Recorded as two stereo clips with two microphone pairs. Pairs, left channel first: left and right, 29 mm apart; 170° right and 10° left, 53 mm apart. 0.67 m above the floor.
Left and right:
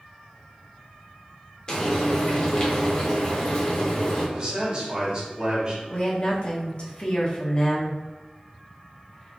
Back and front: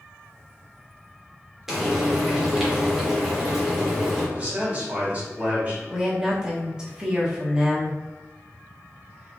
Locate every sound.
1.7 s frying: 85° left, 1.3 m
4.3 s a man speaking: 45° right, 1.6 m
5.9 s a woman speaking: 75° left, 1.1 m